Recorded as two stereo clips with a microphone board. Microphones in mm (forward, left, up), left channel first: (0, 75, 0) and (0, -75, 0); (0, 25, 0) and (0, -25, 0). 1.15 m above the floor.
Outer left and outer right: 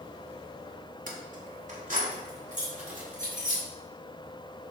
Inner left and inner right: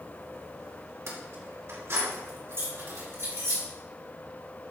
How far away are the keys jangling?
About 1.7 m.